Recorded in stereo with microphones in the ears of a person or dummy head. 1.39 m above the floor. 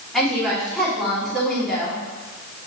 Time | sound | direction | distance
0.1 | a woman speaking | centre (ahead or behind) | 2.5 m